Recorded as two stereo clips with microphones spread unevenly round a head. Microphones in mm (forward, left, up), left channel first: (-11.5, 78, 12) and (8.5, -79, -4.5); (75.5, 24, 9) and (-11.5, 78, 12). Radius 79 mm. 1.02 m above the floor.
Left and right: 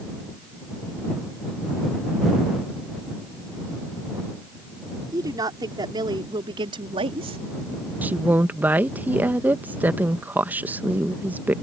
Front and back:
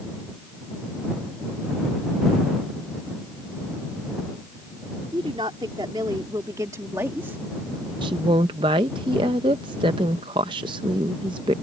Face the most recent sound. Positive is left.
turn(degrees=-160)